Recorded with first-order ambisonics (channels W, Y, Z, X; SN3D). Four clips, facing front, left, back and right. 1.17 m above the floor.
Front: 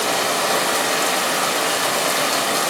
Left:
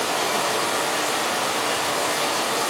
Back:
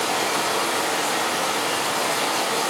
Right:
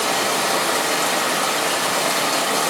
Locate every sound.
0.0 s running water: 35° right, 3 m